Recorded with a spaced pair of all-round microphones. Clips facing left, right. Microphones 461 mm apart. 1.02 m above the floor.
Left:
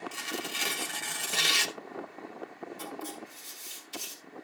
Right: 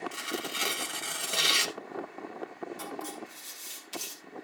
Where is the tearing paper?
10° left (ahead or behind), 0.9 m.